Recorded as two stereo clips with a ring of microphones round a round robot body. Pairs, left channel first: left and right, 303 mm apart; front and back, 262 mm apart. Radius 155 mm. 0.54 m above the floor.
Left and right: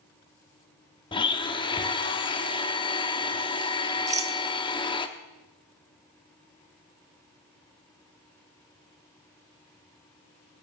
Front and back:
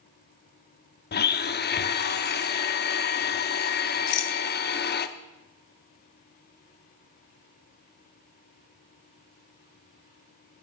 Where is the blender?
25° left, 0.8 m.